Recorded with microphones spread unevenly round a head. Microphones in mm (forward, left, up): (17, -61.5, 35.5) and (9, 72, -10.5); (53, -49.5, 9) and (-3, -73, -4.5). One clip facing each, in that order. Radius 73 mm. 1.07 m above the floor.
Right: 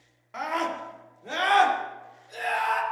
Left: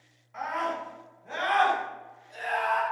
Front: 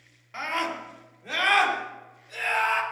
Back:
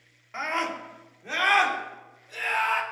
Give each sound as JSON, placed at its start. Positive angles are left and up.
{"t": 0.3, "sound": "a scream", "azimuth_deg": -90, "distance_m": 3.0}